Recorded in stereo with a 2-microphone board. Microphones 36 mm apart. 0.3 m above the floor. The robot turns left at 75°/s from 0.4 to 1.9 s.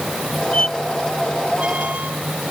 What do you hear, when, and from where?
0.5 s a squeak: 40° left (ahead or behind); by 2.5 s 50° right (ahead or behind)